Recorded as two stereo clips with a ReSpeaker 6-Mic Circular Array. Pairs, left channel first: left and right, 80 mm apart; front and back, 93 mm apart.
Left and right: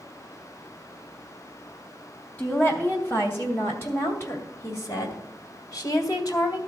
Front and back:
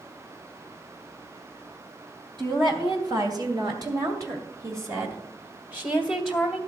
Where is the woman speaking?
155° left, 3 m; by 6.6 s 95° left, 1.7 m.